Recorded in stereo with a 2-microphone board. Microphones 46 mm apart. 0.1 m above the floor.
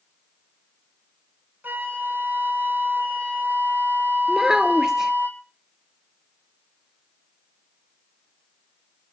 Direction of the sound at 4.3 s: 10° right (ahead or behind).